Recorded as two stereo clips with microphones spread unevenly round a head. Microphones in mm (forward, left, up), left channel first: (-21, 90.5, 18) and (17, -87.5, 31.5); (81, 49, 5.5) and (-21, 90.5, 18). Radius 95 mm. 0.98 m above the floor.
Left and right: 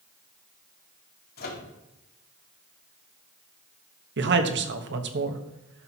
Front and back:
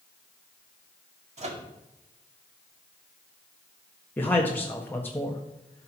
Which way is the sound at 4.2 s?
95° right.